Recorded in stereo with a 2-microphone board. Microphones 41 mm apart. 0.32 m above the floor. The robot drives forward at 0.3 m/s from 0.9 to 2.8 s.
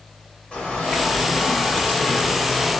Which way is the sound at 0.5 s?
30° left (ahead or behind).